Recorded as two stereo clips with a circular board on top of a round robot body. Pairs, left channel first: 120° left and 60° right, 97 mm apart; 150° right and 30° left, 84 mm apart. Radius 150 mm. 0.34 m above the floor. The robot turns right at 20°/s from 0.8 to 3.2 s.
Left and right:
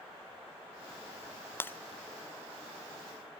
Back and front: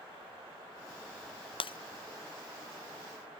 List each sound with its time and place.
1.6 s breaking glass: 170° right; by 1.8 s 165° right